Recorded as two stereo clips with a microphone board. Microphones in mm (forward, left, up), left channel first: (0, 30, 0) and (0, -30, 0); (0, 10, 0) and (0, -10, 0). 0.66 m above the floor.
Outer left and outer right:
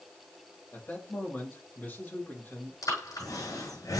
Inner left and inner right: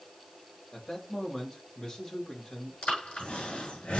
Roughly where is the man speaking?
Left.